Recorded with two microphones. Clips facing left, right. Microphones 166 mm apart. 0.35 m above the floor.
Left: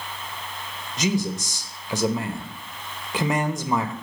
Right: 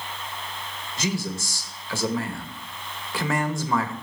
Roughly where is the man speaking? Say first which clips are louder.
Left 4 dB; centre.